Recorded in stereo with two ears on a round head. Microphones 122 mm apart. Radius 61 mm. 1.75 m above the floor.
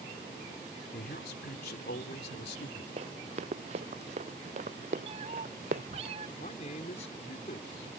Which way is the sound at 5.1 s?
45° right (ahead or behind).